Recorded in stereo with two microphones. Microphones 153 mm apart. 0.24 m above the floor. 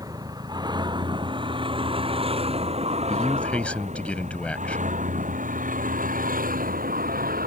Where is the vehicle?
25° right (ahead or behind); by 7.5 s 70° right (ahead or behind).